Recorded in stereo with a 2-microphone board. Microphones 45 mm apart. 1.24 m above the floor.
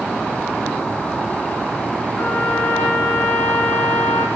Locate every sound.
2.2 s a trumpet: 75° left (ahead or behind), 7.5 m